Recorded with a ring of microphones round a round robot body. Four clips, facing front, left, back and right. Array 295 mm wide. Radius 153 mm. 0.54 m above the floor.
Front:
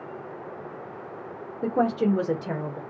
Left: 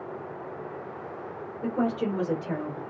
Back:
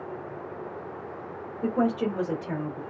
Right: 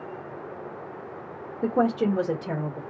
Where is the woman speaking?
45° right, 1.3 m; by 2.8 s 35° right, 2.0 m.